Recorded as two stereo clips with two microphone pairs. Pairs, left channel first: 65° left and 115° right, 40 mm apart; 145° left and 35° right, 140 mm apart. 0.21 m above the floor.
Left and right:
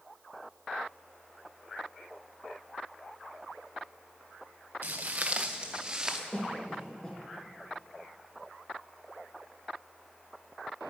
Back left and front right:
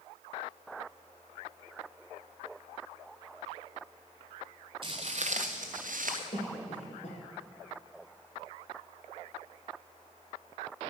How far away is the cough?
About 3.5 m.